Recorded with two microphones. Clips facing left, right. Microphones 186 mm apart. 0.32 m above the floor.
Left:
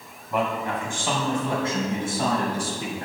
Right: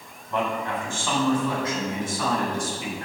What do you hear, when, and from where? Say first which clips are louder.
0.3 s a man speaking: left 1 dB; 10° left (ahead or behind), 2.5 m; by 3.1 s 35° left (ahead or behind), 4 m